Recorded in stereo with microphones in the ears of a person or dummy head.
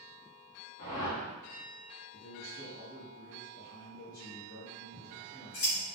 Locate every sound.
0.8 s a whoosh: 60° left (ahead or behind), 1.3 m
2.1 s a man speaking: 55° left (ahead or behind), 1.3 m
4.9 s scissors: 45° left (ahead or behind), 2.0 m